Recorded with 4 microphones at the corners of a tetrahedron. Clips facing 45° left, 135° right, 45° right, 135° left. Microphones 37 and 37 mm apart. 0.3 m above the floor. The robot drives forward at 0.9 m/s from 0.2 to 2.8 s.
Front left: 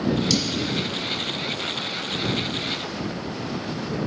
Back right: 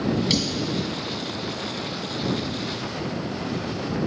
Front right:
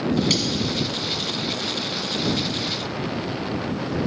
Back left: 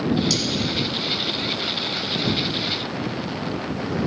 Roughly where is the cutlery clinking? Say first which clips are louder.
Even, front right 1 dB; right.